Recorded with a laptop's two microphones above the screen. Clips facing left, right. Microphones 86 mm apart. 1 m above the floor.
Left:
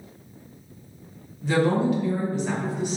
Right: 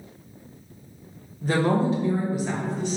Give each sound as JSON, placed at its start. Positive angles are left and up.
{"t": 1.4, "sound": "a woman speaking", "side_deg": -45, "distance_m": 0.8}